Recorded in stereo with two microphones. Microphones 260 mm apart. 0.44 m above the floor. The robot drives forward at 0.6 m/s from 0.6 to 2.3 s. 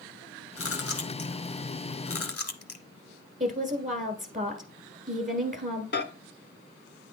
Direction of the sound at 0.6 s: 55° left (ahead or behind).